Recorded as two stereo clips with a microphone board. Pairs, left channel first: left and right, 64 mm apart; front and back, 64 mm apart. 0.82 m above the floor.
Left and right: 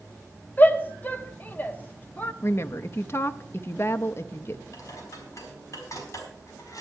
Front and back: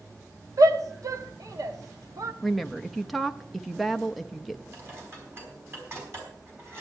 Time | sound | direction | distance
0.6 | a shout | 150° left | 1.3 m
2.4 | a woman speaking | 90° left | 0.5 m
4.7 | dishes clattering | 125° left | 4.5 m